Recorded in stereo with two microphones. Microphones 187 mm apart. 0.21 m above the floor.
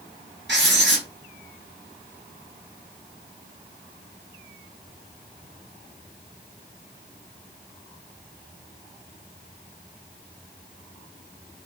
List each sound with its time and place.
0.5 s writing: 75° right (ahead or behind), 0.9 m